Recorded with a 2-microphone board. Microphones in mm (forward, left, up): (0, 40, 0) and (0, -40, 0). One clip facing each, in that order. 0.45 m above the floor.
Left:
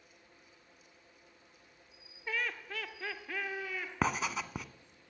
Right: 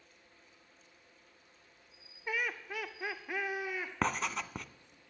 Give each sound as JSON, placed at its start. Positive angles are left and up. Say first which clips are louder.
{"t": 2.3, "sound": "laughter", "louder": "right 1 dB", "side_deg": -10, "distance_m": 0.9}
{"t": 4.0, "sound": "writing", "louder": "left 1 dB", "side_deg": 5, "distance_m": 0.5}